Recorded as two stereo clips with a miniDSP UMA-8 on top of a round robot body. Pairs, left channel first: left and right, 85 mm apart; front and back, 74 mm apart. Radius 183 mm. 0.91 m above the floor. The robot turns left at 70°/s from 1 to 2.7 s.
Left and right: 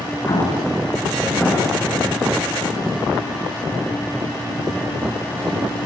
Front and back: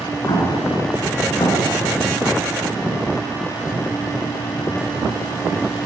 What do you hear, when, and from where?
0.3 s an explosion: 40° left, 5.5 m; by 1.8 s 20° right, 5.5 m